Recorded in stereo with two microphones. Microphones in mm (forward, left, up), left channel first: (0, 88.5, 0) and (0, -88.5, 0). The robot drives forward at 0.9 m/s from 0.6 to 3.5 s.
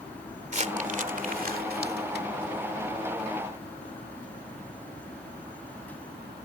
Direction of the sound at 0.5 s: 45° right (ahead or behind).